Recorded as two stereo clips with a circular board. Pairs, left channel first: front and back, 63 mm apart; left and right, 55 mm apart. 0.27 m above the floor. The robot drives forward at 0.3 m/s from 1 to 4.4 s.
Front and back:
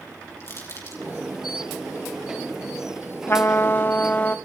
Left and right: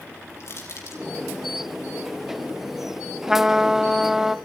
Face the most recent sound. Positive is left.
turn(degrees=-25)